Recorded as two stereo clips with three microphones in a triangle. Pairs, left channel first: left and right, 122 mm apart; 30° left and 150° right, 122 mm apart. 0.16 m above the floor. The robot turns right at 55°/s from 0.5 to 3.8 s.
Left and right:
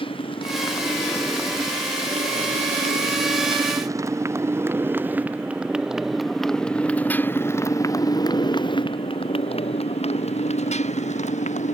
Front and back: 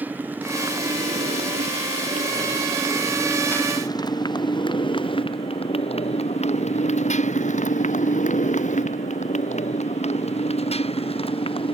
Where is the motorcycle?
135° left; by 11.8 s 75° left.